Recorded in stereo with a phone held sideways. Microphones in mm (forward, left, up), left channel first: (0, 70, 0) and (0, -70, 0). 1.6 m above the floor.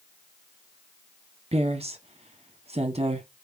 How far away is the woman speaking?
About 0.9 m.